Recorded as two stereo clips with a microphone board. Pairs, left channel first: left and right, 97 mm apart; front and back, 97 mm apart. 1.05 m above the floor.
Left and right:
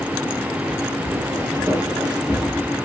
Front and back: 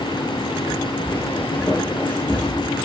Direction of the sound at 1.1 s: 60° right.